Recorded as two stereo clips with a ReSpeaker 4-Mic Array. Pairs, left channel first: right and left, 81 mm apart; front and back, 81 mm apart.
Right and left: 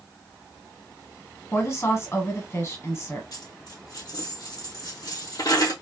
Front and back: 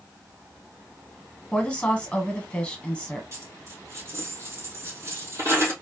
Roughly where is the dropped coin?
Behind right.